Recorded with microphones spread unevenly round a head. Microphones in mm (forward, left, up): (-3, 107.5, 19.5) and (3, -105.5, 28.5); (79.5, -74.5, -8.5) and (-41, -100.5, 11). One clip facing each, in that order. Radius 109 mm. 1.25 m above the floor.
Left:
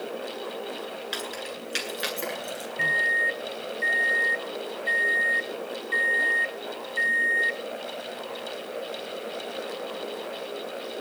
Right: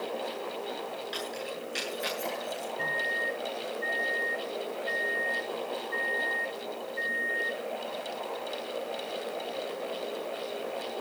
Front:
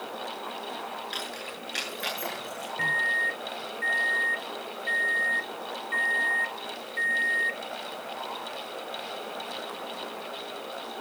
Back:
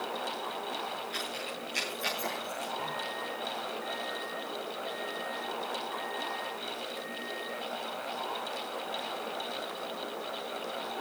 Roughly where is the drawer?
I don't hear a drawer.